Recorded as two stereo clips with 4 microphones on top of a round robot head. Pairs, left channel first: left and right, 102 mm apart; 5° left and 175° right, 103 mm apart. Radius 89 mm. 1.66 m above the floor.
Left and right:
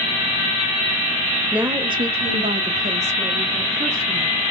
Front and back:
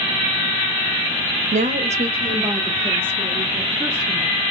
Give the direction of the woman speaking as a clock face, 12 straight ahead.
6 o'clock.